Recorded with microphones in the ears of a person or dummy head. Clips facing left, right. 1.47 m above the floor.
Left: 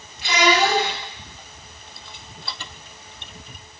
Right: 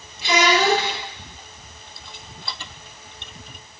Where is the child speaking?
65° right (ahead or behind), 1.6 m.